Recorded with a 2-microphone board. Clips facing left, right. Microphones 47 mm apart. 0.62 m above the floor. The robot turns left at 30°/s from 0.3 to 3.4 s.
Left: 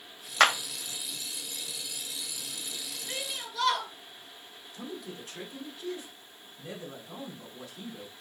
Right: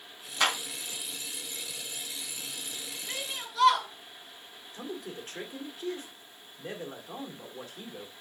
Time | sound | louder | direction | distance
0.4 | a clap | left 5 dB | 75° left (ahead or behind) | 2 m
3.1 | a shout | even | centre (ahead or behind) | 3.5 m
4.7 | a man speaking | right 2 dB | 45° right (ahead or behind) | 1.9 m